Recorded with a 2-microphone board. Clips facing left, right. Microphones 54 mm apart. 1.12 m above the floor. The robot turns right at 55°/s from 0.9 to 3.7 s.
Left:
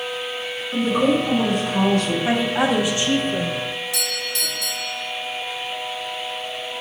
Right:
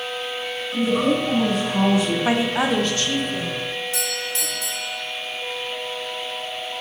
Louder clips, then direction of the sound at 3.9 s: Even; 35° right (ahead or behind).